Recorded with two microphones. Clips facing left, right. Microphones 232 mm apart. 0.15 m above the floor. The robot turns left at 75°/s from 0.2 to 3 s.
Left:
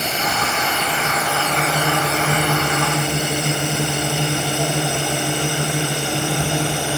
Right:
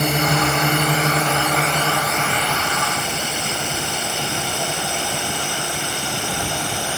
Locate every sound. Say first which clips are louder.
0.0 s a drone: right 5 dB; 55° right (ahead or behind); by 7.0 s 65° left (ahead or behind)